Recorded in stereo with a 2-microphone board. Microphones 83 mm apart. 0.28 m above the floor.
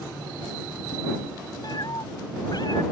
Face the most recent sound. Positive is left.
turn(degrees=55)  # may be behind; listen again after turning